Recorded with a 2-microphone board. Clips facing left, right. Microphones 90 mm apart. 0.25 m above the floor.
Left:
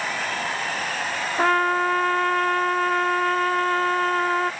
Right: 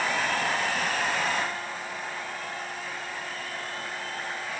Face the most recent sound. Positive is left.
turn(degrees=70)  # may be behind; listen again after turning